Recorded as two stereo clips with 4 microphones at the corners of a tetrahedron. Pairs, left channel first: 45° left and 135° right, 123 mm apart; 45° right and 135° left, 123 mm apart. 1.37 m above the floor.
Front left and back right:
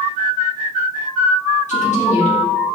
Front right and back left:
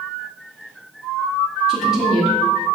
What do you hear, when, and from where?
1.7 s a woman speaking: 50° left, 1.2 m